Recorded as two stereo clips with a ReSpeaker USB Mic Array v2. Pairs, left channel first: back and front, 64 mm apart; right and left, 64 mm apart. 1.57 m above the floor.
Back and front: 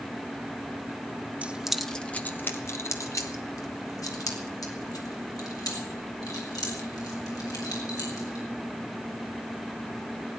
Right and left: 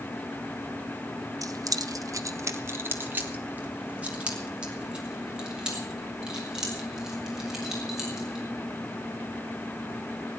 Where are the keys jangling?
70° left, 1.1 m; by 8.4 s 170° left, 7.5 m.